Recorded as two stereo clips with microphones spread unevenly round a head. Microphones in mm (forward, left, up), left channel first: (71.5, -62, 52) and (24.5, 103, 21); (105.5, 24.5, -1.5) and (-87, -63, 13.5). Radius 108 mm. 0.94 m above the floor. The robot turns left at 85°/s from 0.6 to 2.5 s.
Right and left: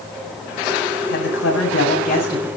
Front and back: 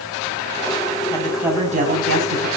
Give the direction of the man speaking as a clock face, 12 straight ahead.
1 o'clock.